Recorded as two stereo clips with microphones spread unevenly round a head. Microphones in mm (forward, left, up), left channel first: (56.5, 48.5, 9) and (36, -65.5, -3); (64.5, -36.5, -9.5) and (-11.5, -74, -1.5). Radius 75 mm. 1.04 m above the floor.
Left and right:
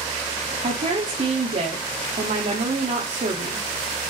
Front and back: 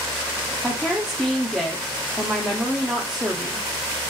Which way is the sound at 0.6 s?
65° right.